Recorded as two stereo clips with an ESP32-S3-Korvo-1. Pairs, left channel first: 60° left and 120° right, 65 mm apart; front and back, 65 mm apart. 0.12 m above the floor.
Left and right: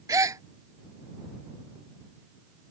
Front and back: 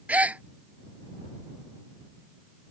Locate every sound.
0.1 s a gasp: 115° right